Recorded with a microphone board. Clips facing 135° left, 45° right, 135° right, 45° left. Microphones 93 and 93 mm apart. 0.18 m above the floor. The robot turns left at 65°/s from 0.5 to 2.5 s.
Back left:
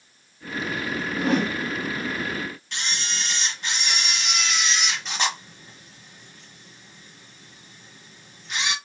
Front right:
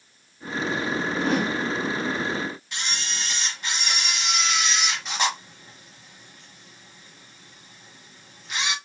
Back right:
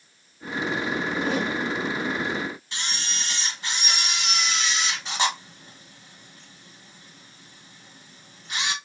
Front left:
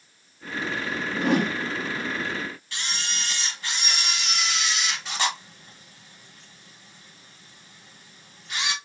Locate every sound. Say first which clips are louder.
1.1 s a whoosh: back left 2 dB, front left 6 dB; 60° left, 0.6 m; by 1.6 s 30° left, 0.6 m
2.7 s a camera shutter: back left 1 dB, even; 120° right, 1.2 m